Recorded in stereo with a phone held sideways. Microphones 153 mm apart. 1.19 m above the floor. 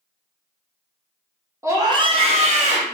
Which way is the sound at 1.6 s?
15° right (ahead or behind).